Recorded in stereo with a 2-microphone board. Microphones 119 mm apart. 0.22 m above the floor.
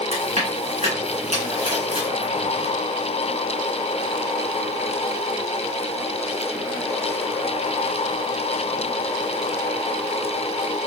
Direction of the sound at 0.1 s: 75° right (ahead or behind).